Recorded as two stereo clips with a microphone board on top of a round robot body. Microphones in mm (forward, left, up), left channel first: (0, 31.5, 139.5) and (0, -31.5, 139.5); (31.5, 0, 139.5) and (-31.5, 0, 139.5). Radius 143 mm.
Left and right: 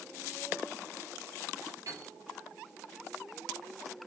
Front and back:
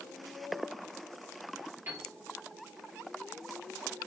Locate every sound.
1.9 s a piano: 125° right, 3.5 m